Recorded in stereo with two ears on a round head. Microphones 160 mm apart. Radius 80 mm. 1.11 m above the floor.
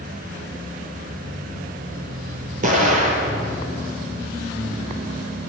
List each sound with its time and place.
2.6 s an explosion: 40° right (ahead or behind), 5.5 m